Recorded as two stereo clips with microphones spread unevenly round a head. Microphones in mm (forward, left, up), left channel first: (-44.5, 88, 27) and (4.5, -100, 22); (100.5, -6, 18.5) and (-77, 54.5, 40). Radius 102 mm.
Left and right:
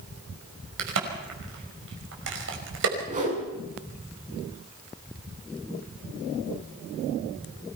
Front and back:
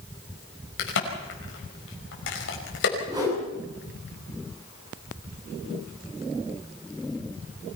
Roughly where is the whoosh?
Behind right.